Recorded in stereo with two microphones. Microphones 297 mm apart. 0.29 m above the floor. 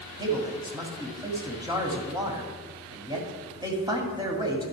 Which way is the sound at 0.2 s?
15° right (ahead or behind).